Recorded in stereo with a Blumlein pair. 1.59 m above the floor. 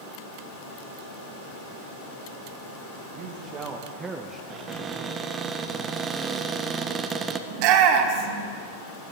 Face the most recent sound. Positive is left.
turn(degrees=-40)